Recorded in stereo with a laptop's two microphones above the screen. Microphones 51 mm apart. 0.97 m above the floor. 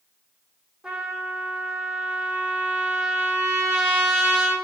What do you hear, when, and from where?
0.8 s a trumpet: 15° right (ahead or behind), 3 m